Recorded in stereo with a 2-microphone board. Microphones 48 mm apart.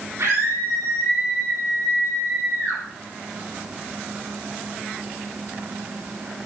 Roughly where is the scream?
Right.